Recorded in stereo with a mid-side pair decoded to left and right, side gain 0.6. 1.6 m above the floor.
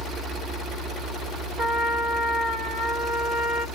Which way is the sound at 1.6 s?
30° right.